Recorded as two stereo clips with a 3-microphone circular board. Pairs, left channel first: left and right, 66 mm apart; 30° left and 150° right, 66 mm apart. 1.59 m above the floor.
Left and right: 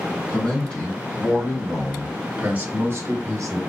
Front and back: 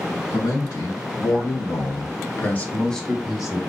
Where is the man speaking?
20° left, 1.6 m; by 3.6 s 75° right, 0.8 m.